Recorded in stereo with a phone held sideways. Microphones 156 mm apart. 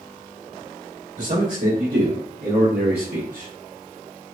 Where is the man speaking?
55° right (ahead or behind), 1.2 m.